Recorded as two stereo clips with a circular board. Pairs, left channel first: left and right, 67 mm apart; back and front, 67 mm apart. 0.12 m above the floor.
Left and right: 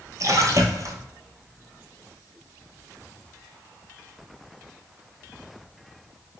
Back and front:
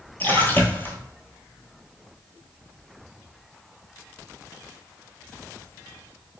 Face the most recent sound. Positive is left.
turn(degrees=-120)